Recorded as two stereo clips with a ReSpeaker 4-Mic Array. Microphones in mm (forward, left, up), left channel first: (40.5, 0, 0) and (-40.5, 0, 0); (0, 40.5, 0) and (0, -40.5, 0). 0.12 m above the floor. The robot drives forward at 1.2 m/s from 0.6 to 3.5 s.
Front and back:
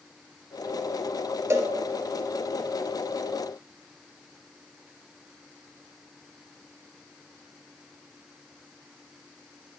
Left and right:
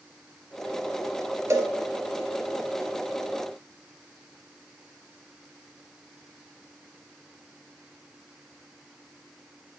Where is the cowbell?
130° right, 1.0 m; by 1.7 s 145° right, 1.2 m.